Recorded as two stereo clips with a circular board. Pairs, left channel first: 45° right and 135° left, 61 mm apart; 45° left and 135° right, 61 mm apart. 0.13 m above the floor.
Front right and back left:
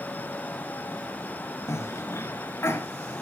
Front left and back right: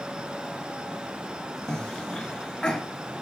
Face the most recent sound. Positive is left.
turn(degrees=-30)